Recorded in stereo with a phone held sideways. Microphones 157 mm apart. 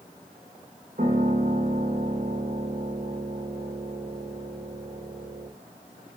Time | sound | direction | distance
1.0 | a piano | 60° right (ahead or behind) | 2.5 m